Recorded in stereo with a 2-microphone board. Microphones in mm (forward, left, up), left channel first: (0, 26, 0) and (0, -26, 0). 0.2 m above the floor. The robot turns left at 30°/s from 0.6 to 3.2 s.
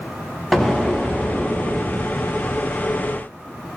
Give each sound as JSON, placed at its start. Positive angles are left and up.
{"t": 0.5, "sound": "an explosion", "azimuth_deg": 0, "distance_m": 0.7}